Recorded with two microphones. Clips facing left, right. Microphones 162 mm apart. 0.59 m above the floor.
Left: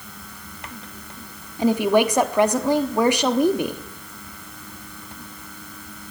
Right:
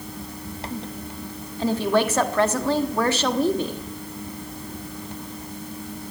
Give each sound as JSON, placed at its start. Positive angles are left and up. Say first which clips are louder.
{"t": 1.6, "sound": "a woman speaking", "louder": "left 3 dB", "side_deg": 15, "distance_m": 1.0}